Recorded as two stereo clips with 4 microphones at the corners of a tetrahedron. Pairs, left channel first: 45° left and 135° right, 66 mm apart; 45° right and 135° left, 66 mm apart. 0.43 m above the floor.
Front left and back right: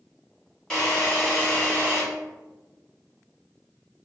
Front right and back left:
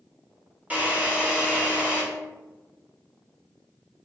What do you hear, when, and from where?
0.7 s a drill: 115° left, 1.3 m